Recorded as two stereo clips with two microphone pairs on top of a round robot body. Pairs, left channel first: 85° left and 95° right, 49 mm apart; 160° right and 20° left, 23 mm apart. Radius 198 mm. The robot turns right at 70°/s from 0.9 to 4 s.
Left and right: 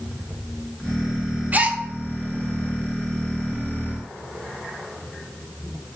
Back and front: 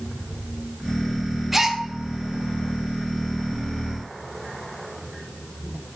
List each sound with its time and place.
1.5 s a gasp: 60° right, 1.4 m; by 1.8 s 40° right, 1.4 m